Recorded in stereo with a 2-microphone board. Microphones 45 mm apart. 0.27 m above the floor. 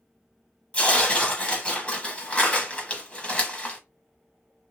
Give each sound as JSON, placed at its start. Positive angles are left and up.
{"t": 0.7, "sound": "tearing paper", "side_deg": 25, "distance_m": 1.1}